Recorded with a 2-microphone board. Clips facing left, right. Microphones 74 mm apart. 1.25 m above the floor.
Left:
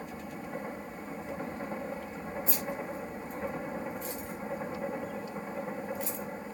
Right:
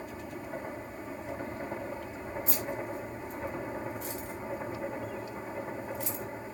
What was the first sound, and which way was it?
Keys jangling, 85° right.